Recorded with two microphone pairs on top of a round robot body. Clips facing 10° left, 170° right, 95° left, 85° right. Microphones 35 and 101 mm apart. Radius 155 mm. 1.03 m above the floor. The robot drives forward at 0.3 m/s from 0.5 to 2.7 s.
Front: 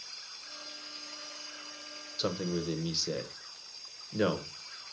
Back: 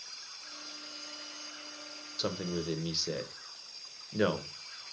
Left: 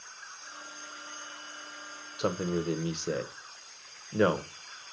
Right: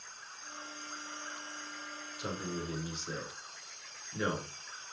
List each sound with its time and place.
2.2 s a man speaking: 100° left, 1.0 m; by 4.5 s 105° left, 1.0 m